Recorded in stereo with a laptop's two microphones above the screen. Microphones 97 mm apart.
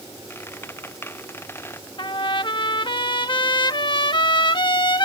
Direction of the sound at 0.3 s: 25° left (ahead or behind).